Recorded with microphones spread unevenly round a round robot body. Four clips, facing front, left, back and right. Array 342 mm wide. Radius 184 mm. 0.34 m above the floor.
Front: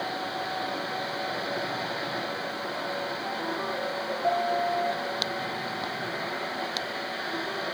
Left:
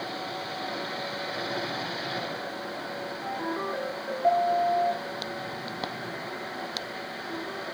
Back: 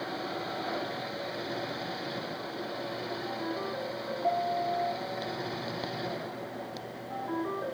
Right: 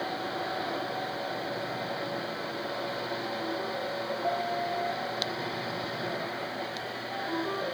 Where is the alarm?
No alarm in this recording.